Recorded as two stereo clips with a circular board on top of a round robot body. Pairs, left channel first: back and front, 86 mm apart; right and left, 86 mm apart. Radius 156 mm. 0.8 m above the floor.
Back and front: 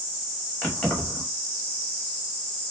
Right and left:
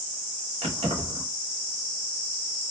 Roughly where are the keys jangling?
Left.